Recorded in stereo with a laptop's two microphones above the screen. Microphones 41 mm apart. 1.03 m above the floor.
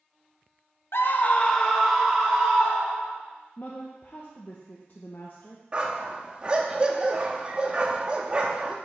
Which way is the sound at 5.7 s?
25° right (ahead or behind).